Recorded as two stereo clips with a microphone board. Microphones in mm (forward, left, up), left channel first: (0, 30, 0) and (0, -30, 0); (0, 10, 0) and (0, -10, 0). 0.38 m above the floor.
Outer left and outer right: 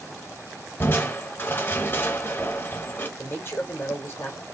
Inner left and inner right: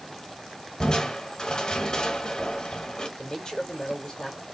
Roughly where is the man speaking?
Left.